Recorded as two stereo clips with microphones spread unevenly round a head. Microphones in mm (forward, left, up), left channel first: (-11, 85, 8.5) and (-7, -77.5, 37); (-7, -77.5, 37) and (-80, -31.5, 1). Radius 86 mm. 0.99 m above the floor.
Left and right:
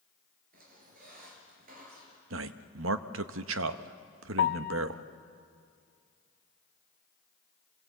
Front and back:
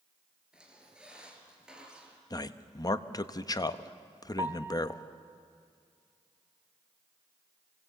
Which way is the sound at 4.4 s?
95° left.